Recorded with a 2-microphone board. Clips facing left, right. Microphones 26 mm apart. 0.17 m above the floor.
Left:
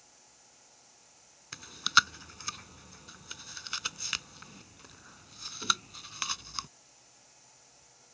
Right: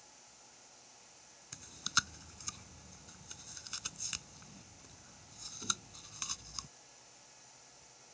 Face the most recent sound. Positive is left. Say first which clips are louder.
# left 10 dB
turn(degrees=45)  # may be behind; listen again after turning